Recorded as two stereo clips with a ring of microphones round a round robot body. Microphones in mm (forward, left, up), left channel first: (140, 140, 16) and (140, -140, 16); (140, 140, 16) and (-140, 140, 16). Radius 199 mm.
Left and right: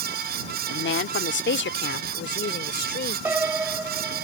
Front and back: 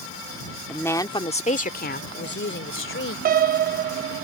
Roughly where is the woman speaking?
Left.